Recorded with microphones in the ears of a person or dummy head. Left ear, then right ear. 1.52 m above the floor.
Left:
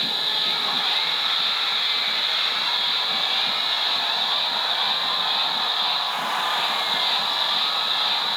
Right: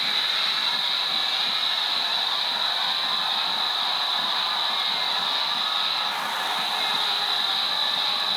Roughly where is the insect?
Left.